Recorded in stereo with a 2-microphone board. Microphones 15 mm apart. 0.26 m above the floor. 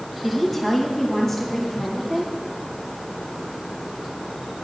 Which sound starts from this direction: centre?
A woman speaking, at 0.2 s.